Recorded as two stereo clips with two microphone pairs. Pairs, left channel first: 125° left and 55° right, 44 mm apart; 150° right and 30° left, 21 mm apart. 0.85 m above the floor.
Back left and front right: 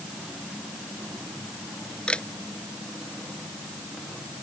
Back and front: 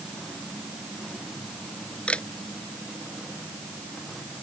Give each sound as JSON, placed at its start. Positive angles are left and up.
{"t": 2.1, "sound": "a camera shutter", "azimuth_deg": -165}